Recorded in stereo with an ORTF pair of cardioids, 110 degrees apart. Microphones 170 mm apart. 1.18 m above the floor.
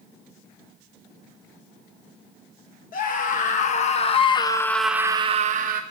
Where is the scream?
55° left, 1.9 m; by 5.8 s 80° right, 0.9 m.